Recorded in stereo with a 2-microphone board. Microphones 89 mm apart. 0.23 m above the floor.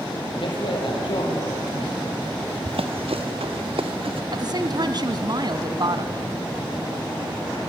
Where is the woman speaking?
45° right (ahead or behind), 1.9 m.